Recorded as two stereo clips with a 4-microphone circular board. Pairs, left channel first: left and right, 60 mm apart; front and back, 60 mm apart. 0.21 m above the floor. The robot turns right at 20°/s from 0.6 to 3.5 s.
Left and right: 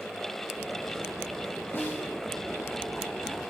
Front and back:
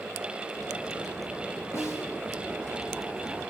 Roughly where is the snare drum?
Ahead left.